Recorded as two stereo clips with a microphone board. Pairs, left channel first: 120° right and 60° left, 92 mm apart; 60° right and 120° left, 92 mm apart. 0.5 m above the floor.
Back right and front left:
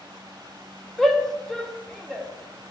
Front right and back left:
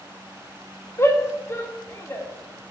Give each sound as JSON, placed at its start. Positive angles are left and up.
{"t": 1.0, "sound": "a shout", "azimuth_deg": -35, "distance_m": 1.4}